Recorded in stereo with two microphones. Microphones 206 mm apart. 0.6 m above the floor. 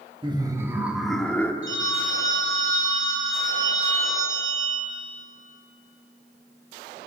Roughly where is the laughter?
Right.